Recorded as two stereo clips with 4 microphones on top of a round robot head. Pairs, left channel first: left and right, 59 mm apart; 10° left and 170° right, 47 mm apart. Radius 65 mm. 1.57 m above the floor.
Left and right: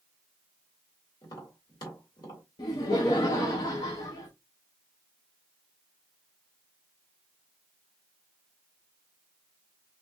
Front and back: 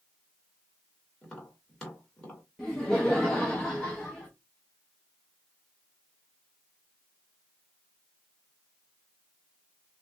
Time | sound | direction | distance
1.2 | tapping | 80° left | 2 m
2.6 | laughter | 85° left | 0.8 m